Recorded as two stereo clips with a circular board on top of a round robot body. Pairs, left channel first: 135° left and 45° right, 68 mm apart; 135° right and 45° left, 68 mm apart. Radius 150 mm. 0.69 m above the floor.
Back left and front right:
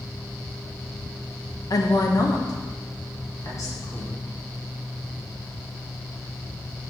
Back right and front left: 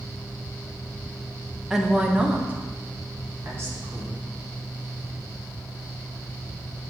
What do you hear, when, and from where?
1.7 s a woman speaking: 130° left, 1.0 m; by 4.2 s 95° left, 2.5 m